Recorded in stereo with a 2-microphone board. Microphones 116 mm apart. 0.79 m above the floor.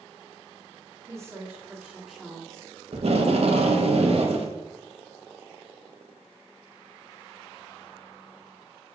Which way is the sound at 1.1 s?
25° right (ahead or behind).